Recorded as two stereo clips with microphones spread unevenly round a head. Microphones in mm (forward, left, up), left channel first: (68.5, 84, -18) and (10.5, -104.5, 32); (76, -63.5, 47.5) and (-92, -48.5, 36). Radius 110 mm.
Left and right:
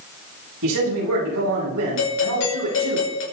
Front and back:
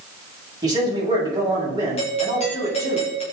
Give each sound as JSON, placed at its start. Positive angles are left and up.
{"t": 0.6, "sound": "a man speaking", "azimuth_deg": -120, "distance_m": 9.5}
{"t": 2.0, "sound": "a doorbell", "azimuth_deg": 55, "distance_m": 5.0}